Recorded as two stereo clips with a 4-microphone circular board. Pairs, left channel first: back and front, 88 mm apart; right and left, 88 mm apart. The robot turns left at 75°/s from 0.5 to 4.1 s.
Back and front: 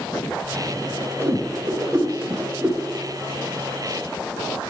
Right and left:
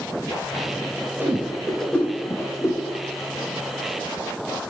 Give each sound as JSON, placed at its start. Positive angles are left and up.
{"t": 1.2, "sound": "a whoosh", "azimuth_deg": 40, "distance_m": 1.1}